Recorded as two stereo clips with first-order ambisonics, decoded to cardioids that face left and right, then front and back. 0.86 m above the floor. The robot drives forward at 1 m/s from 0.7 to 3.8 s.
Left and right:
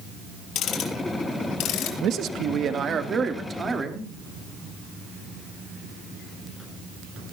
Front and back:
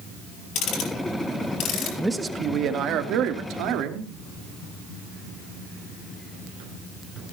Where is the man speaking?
95° right, 0.9 m; by 4.1 s 160° right, 2 m.